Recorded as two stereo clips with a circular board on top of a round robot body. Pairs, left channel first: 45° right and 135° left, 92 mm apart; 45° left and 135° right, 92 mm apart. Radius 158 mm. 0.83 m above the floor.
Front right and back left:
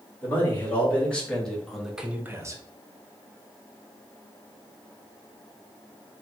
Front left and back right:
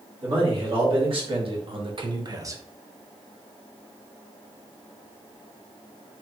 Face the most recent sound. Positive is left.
turn(degrees=170)